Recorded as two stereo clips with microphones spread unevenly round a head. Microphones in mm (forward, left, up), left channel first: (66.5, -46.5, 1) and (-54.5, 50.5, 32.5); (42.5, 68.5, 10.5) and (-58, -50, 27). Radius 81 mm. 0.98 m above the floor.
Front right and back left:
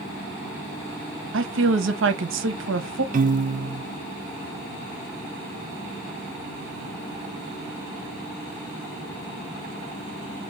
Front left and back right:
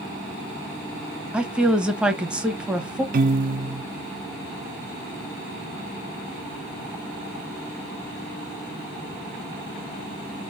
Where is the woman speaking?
145° left, 1.0 m.